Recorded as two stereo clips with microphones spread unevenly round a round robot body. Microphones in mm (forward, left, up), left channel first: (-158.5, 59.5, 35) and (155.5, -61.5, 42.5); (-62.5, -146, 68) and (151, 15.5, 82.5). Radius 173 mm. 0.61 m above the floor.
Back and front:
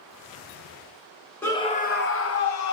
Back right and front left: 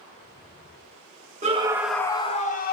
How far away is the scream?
About 0.6 m.